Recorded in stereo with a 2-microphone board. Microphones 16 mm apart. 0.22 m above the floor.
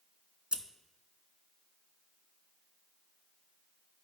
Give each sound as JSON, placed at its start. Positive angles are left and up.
{"t": 0.5, "sound": "scissors", "side_deg": -75, "distance_m": 0.6}